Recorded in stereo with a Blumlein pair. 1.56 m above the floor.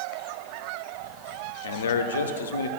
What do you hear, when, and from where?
1.6 s a man speaking: 65° left, 0.6 m